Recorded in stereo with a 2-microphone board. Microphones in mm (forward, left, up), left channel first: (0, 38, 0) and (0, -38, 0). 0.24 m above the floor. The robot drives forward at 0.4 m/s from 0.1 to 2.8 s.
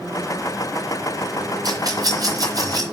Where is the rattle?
55° right (ahead or behind), 3.5 m; by 2.8 s 50° right (ahead or behind), 3.5 m.